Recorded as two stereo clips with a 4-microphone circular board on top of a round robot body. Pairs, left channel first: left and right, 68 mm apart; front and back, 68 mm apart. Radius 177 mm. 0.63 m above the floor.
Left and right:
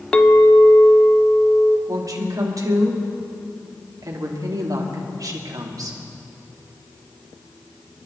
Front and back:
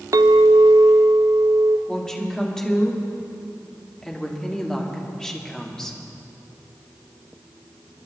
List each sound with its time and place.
0.1 s a clink: 165° left, 0.5 m
1.9 s a woman speaking: 75° right, 2.5 m